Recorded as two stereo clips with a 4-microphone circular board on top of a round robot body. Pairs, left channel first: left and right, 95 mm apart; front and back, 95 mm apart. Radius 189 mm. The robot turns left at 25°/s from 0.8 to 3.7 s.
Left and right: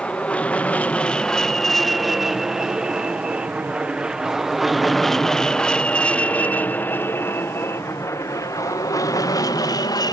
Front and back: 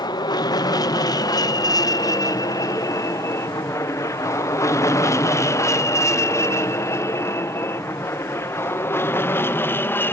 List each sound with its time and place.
0.0 s an aircraft: 15° left; by 10.1 s 60° left